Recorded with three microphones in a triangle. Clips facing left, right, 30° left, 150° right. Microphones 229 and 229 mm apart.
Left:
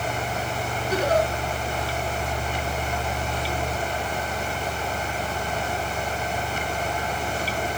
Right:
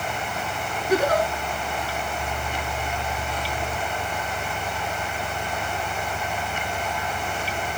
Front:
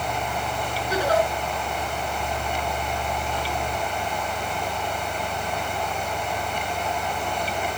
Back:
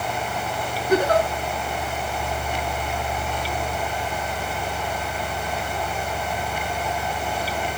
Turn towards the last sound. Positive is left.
turn(degrees=-115)